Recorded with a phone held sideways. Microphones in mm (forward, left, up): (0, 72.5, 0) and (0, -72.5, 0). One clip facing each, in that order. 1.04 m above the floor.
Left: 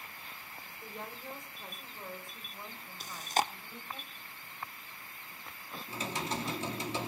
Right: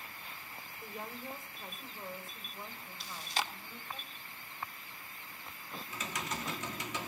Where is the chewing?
45° left (ahead or behind), 0.8 m.